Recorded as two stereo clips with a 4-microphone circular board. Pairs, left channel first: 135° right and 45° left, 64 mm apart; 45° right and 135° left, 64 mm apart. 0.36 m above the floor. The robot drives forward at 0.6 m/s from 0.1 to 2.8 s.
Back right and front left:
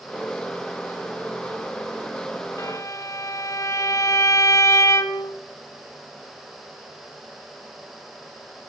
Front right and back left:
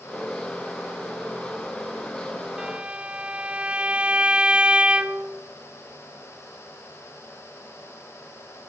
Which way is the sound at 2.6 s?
150° right.